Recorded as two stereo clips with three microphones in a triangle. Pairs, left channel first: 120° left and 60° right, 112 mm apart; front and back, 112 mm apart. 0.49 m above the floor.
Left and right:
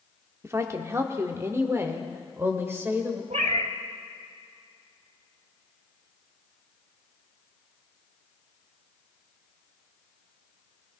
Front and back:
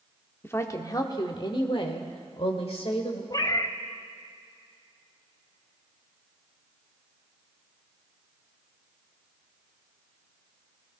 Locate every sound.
0.4 s a woman speaking: 35° right, 1.0 m; by 3.2 s 5° left, 2 m
3.3 s a cat meowing: 55° right, 0.8 m